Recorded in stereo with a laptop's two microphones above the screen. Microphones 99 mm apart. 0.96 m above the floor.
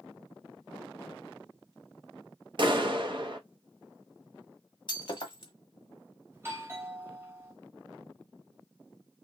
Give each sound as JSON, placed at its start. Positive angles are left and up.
{"t": 2.6, "sound": "a clap", "side_deg": -50, "distance_m": 0.7}
{"t": 4.9, "sound": "breaking glass", "side_deg": 50, "distance_m": 1.0}
{"t": 6.3, "sound": "a doorbell", "side_deg": -25, "distance_m": 0.8}